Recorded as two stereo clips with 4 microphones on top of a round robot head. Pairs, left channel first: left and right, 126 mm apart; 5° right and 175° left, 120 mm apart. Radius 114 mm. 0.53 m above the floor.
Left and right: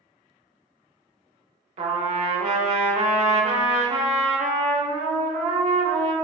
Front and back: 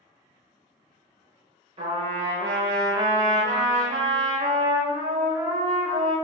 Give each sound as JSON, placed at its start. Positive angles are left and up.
{"t": 1.8, "sound": "a trumpet", "azimuth_deg": -130, "distance_m": 0.6}